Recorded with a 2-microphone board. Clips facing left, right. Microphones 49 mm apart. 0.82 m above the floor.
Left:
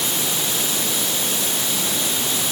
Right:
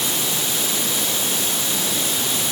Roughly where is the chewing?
No chewing in this recording.